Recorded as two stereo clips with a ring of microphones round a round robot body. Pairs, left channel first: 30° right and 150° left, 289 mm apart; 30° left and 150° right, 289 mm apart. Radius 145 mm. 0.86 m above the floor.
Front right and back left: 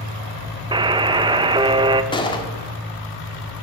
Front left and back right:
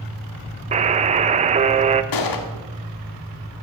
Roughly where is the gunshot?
Ahead left.